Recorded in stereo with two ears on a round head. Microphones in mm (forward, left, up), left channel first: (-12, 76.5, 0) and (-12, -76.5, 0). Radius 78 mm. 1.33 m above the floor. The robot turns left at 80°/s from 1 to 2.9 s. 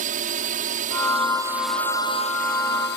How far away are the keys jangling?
I don't hear keys jangling.